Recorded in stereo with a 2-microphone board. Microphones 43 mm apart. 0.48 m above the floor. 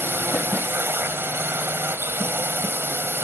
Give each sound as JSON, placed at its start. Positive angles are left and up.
{"t": 0.0, "sound": "a drone", "side_deg": -55}